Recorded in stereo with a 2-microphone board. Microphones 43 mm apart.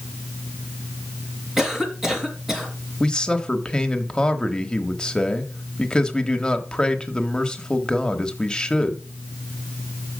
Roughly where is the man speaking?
Left.